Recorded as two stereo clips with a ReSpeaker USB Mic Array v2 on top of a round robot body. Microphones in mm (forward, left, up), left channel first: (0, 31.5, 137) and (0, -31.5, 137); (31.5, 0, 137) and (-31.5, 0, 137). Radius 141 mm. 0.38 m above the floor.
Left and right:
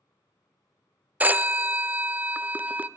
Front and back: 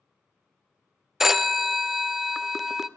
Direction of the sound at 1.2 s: 100° right.